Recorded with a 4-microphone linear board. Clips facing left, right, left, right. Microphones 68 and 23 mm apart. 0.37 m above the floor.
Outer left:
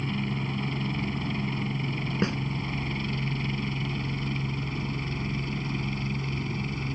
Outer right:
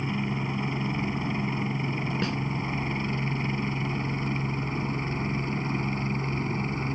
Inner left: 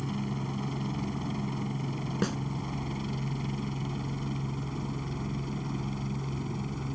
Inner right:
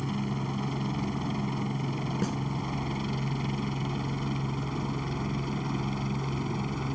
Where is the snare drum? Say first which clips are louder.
Outer left 4 dB, inner left 2 dB; 20° left (ahead or behind).